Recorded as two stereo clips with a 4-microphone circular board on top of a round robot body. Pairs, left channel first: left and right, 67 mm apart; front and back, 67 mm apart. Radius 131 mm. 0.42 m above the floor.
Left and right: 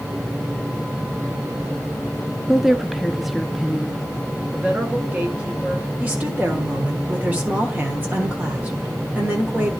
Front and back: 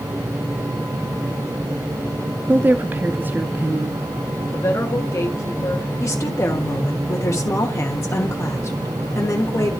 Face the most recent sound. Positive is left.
turn(degrees=-30)